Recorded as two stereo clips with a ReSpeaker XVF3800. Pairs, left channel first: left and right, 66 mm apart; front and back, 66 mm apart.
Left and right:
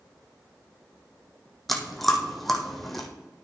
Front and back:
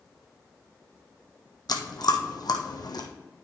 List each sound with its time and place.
1.7 s chewing: straight ahead, 1.2 m